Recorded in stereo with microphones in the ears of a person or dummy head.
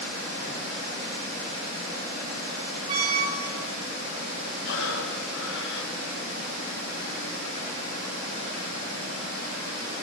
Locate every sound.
2.9 s a squeak: 25° right (ahead or behind), 2.5 m
4.6 s breathing: 70° left (ahead or behind), 1.6 m